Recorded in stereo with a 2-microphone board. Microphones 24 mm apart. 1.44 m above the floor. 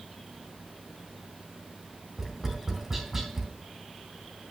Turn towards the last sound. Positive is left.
turn(degrees=-20)  # may be behind; listen again after turning